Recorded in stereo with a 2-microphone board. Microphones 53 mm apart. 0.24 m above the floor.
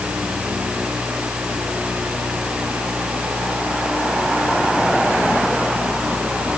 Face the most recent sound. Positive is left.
No sound to turn to.